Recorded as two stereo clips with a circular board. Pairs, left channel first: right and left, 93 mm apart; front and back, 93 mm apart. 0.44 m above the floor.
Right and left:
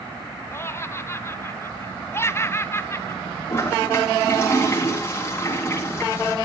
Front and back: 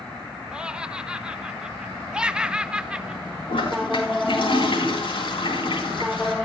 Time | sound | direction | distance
0.5 | laughter | 110° right | 0.9 m
3.5 | a toilet flushing | 25° right | 4.5 m